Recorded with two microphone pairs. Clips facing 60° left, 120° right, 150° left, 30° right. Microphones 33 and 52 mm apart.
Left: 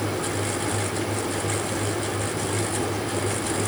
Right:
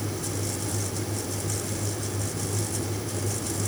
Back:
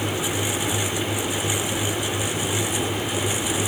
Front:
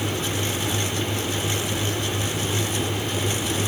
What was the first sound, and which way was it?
Only background noise.